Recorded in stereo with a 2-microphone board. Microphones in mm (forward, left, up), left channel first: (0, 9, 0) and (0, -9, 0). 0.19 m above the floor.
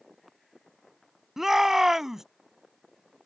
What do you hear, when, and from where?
1.4 s a shout: 20° right (ahead or behind)